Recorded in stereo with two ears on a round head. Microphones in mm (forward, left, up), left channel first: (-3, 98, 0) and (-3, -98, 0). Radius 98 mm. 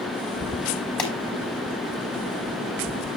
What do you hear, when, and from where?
1.0 s a pop: 5° left (ahead or behind), 4 m